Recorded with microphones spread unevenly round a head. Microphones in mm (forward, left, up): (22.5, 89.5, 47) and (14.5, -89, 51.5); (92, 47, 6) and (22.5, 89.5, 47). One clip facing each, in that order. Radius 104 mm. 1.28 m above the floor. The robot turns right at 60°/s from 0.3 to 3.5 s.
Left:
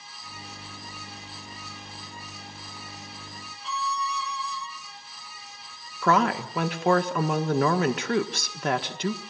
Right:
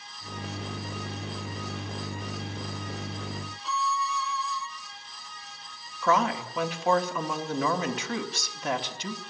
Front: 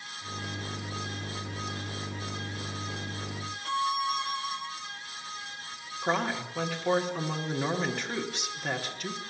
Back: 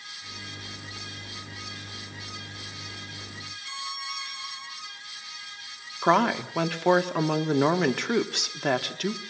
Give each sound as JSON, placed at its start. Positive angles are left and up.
{"t": 3.6, "sound": "a violin", "azimuth_deg": -5, "distance_m": 3.0}
{"t": 6.0, "sound": "a woman speaking", "azimuth_deg": 120, "distance_m": 1.8}